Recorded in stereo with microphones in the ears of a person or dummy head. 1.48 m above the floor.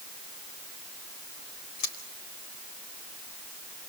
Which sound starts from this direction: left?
Scissors, at 1.8 s.